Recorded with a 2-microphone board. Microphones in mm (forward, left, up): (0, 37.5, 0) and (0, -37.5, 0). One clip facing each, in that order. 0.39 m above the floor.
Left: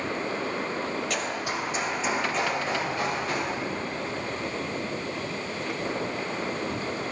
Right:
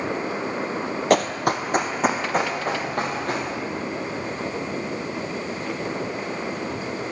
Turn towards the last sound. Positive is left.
turn(degrees=-45)  # may be behind; listen again after turning